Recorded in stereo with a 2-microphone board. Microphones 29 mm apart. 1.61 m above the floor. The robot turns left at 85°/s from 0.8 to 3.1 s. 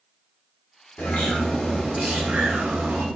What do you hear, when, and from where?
1.0 s a bird: 65° left, 1.3 m; by 3.1 s 110° right, 1.3 m